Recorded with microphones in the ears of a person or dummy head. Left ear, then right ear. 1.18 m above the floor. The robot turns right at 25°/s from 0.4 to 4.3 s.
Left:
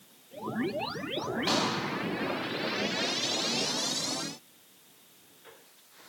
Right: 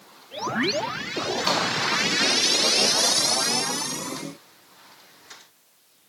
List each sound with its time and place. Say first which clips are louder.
1.5 s a pop: right 4 dB; 45° right (ahead or behind), 1.8 m; by 1.7 s 40° right (ahead or behind), 1.8 m